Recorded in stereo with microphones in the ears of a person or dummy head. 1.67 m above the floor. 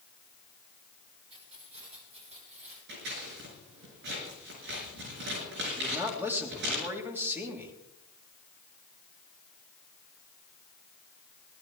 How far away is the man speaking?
About 3.5 m.